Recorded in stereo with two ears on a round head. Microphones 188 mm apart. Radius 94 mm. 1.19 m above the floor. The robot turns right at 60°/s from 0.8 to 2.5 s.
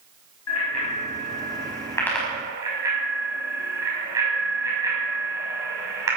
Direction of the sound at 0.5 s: 85° left.